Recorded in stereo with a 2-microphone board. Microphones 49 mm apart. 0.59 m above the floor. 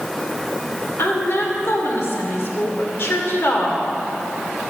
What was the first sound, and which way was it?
A woman speaking, 60° left (ahead or behind).